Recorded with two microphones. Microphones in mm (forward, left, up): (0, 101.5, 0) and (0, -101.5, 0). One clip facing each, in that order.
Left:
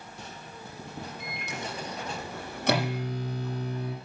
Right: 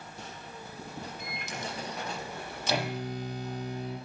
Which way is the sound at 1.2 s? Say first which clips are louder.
Left 1 dB; 60° left (ahead or behind).